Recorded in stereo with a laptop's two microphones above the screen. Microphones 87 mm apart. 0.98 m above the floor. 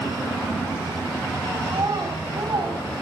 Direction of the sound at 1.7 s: 50° right (ahead or behind).